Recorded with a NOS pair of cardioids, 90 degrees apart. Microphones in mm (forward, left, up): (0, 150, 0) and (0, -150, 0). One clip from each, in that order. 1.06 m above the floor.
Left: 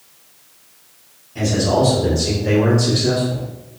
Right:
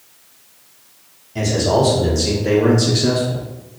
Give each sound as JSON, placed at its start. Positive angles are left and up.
{"t": 1.4, "sound": "a man speaking", "azimuth_deg": -35, "distance_m": 2.0}